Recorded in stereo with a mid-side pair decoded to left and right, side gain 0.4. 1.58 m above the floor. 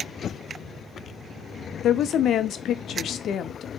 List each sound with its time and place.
1.8 s a woman speaking: 65° left, 0.6 m